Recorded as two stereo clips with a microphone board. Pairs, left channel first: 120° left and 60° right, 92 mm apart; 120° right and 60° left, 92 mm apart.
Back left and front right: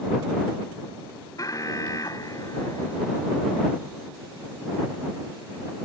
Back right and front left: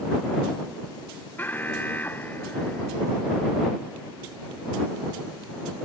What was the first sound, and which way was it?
An alarm, 170° left.